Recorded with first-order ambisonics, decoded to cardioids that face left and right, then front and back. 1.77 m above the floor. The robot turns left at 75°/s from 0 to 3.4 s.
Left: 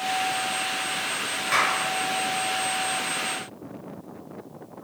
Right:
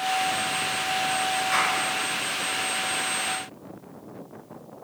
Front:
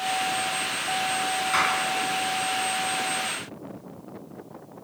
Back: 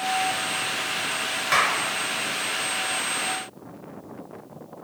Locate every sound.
1.5 s a clap: 165° left, 5 m; by 1.9 s 140° left, 5 m